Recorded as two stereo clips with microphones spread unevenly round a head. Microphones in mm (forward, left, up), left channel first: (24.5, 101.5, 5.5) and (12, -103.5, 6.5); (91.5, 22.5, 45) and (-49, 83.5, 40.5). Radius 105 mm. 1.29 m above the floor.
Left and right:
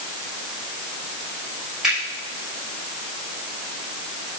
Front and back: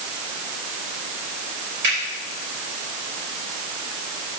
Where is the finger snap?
Straight behind, 5.5 m.